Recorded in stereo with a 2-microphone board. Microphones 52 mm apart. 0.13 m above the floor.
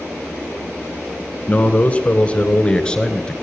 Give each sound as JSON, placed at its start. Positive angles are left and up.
{"t": 1.5, "sound": "a man speaking", "side_deg": 25, "distance_m": 1.1}